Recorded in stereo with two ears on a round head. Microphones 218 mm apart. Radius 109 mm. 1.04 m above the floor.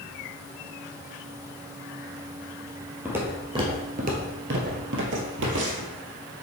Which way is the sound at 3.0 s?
10° right (ahead or behind).